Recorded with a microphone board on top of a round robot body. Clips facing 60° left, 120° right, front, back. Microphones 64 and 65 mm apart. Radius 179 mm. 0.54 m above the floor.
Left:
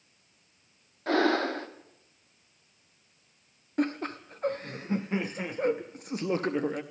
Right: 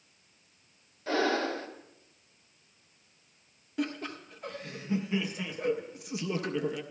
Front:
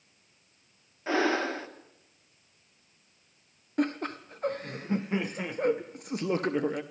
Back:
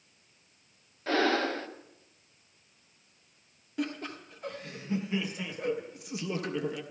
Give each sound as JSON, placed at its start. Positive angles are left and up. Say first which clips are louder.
{"t": 1.1, "sound": "breathing", "louder": "left 3 dB, even", "azimuth_deg": 75, "distance_m": 1.6}
{"t": 3.8, "sound": "laughter", "louder": "left 5 dB, front 5 dB", "azimuth_deg": 25, "distance_m": 0.8}